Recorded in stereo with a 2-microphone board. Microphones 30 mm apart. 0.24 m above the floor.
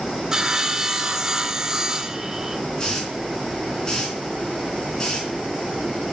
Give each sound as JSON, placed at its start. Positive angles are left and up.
{"t": 0.3, "sound": "sawing", "side_deg": -20, "distance_m": 0.9}
{"t": 2.8, "sound": "a hiss", "side_deg": 25, "distance_m": 3.0}